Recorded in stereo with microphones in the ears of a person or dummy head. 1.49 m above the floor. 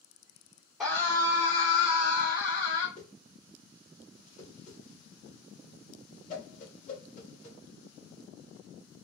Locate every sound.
0.8 s a scream: 5° left (ahead or behind), 0.6 m; by 2.9 s 90° left, 1.5 m
3.0 s a whoosh: 50° left (ahead or behind), 1.7 m